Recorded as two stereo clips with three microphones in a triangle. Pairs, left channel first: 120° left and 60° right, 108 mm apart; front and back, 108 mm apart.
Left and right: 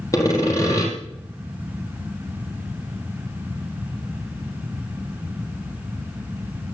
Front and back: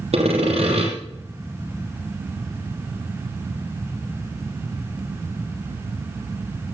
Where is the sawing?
Straight behind, 4.5 m.